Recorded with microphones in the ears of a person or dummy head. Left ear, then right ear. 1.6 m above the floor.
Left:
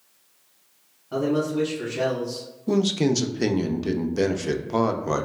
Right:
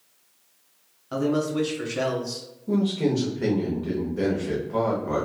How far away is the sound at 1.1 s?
About 1.5 m.